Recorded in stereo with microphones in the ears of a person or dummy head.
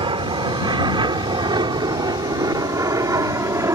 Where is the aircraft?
30° right (ahead or behind); by 3.8 s 20° right (ahead or behind).